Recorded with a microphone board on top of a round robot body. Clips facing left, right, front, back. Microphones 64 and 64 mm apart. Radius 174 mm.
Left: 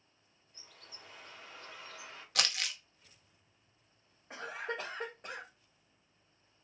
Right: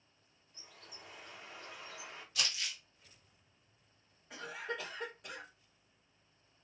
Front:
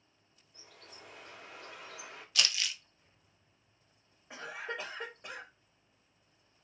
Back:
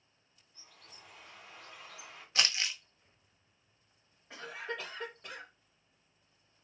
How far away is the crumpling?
About 0.6 m.